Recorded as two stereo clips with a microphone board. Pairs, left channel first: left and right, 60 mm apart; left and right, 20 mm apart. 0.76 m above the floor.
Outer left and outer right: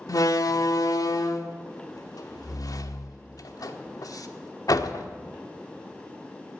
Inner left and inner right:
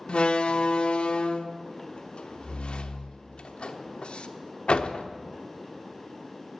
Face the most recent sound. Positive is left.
turn(degrees=75)  # may be behind; listen again after turning